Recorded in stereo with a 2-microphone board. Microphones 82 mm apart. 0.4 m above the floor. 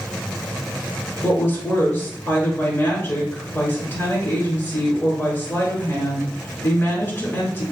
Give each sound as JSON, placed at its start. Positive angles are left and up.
{"t": 1.2, "sound": "a woman speaking", "side_deg": 30, "distance_m": 1.5}